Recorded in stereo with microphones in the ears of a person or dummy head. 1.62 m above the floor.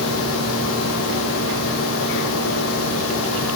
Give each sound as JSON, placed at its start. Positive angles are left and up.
{"t": 0.0, "sound": "a machine running", "side_deg": 75, "distance_m": 1.0}